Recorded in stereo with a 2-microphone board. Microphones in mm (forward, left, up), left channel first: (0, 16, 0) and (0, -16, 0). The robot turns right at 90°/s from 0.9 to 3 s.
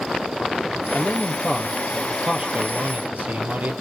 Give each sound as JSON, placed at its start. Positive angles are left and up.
{"t": 0.9, "sound": "a man speaking", "azimuth_deg": 80, "distance_m": 3.0}